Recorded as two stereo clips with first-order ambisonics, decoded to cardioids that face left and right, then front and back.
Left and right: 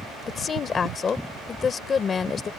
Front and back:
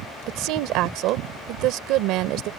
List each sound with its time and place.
0.3 s a woman speaking: 155° left